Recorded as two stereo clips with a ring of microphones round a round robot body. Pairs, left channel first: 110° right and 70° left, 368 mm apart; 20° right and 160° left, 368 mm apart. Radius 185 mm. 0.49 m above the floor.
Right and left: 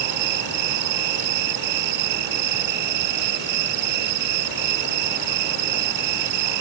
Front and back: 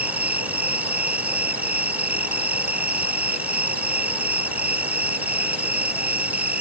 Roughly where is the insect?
Left.